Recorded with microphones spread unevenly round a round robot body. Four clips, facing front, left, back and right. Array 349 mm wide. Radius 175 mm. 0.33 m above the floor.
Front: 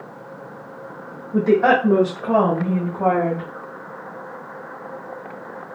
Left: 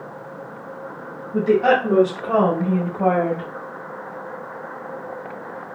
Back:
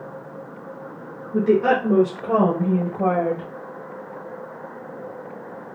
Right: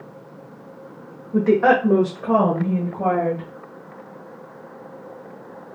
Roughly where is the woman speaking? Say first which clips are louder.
Right 1 dB, front 2 dB; right.